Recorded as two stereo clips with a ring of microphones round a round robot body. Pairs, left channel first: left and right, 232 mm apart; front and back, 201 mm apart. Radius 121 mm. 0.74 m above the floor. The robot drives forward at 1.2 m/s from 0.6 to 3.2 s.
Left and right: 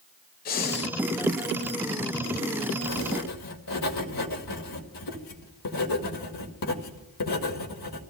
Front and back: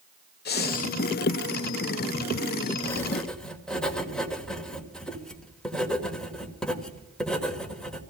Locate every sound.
0.5 s breathing: 35° left, 1.0 m; by 0.9 s 55° left, 0.8 m
2.8 s writing: 75° left, 2 m; by 8.0 s 85° left, 2 m